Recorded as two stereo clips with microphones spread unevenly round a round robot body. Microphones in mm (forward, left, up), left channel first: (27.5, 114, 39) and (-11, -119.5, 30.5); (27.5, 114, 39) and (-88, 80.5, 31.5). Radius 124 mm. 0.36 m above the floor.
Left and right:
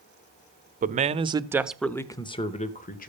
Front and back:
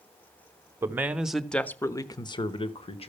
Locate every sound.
0.8 s a man speaking: 115° right, 0.9 m; by 3.1 s 35° left, 1.2 m